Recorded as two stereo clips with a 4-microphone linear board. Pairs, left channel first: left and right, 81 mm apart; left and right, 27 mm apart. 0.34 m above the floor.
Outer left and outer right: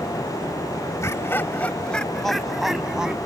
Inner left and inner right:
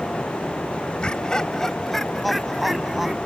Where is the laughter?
40° left (ahead or behind); by 3.1 s 10° right (ahead or behind).